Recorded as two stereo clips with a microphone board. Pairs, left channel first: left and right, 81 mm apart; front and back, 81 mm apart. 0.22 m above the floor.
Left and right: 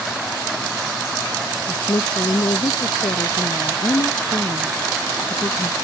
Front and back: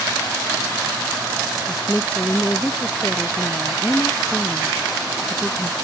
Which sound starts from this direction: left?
A woman speaking, at 1.7 s.